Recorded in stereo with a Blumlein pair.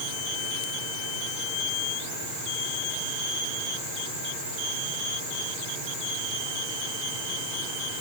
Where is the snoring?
I don't hear snoring.